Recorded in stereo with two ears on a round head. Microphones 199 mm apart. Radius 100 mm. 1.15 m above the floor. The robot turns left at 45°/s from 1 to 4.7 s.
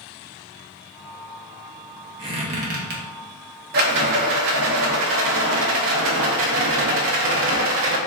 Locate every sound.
2.2 s a squeak: 20° right (ahead or behind), 0.6 m; by 3.0 s 45° right (ahead or behind), 0.6 m
3.7 s a rattle: 50° right, 0.5 m; by 8.0 s 95° right, 0.5 m